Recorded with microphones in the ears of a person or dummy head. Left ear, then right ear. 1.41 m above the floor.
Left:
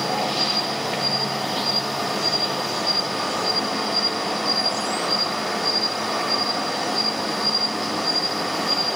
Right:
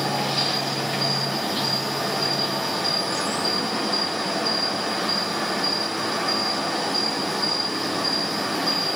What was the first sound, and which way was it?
An insect, 10° left (ahead or behind).